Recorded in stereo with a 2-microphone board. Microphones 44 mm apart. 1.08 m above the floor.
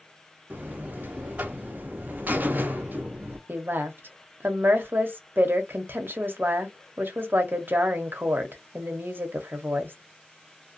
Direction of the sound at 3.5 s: 50° right (ahead or behind).